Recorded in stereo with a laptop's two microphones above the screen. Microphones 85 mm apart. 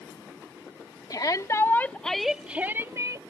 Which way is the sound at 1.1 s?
50° left (ahead or behind).